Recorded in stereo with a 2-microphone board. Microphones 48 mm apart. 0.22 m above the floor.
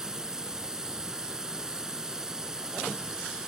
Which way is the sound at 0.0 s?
10° right (ahead or behind).